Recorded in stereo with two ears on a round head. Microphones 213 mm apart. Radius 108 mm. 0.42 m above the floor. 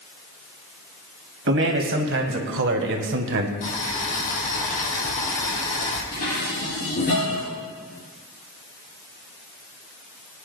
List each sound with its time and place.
1.5 s a man speaking: 60° right (ahead or behind), 2 m; by 3.5 s 55° right (ahead or behind), 1.3 m
3.6 s boiling: 35° left (ahead or behind), 2.5 m
6.1 s dishes clattering: 40° left (ahead or behind), 5 m